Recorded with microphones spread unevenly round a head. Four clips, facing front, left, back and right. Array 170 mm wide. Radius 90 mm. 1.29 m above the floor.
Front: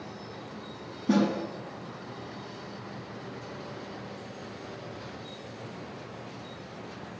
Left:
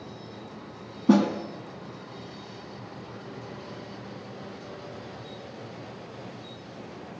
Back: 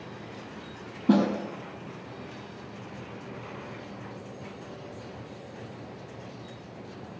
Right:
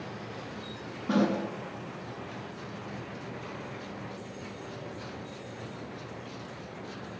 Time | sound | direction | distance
1.1 | a snare drum | 115° left | 6 m